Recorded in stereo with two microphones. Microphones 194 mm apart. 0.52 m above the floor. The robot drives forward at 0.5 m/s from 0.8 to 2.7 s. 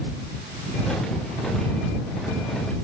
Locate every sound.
Only background noise.